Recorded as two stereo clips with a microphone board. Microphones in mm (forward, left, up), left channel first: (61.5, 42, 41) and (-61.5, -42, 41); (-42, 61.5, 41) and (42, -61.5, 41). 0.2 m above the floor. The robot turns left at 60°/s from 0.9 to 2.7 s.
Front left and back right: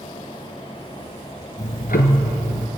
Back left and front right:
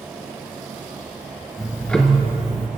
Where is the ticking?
60° left, 1.4 m; by 2.7 s 5° right, 1.4 m.